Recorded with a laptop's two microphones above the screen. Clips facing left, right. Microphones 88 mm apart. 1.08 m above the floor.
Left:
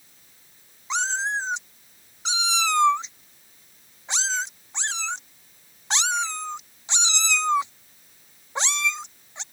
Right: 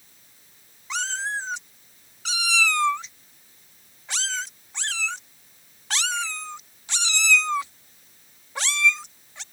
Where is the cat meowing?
20° left (ahead or behind).